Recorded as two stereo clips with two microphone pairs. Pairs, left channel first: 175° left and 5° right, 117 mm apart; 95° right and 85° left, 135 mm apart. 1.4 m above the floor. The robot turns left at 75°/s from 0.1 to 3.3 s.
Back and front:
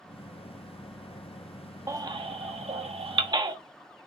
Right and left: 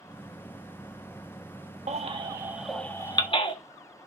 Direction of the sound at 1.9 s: 55° left.